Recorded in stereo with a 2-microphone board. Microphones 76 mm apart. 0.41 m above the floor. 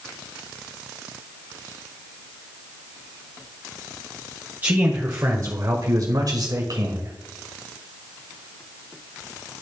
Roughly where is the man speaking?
Right.